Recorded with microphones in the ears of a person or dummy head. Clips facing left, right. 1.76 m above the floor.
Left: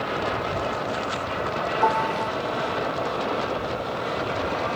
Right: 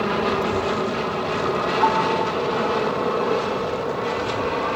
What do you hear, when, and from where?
0.0 s an aircraft: 65° right (ahead or behind); by 4.8 s 70° right (ahead or behind)
1.8 s a piano: 35° left (ahead or behind)